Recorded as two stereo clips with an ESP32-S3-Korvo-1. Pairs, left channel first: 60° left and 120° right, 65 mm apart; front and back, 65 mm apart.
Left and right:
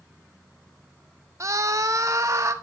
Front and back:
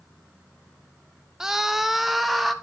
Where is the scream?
95° right, 0.9 m; by 2.5 s 90° right, 1.8 m.